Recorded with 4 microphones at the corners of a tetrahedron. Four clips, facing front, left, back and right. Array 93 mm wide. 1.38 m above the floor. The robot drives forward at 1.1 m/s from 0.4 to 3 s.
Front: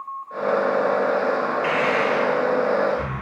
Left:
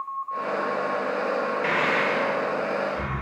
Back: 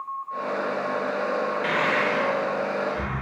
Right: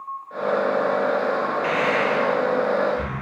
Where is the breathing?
110° left, 0.7 m; by 3.2 s 165° left, 1.8 m.